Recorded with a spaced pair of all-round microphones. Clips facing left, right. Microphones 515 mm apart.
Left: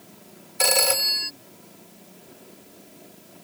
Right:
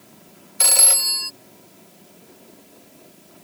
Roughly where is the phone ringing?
Left.